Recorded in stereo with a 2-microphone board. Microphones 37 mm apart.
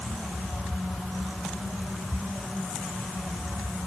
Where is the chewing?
No chewing in this recording.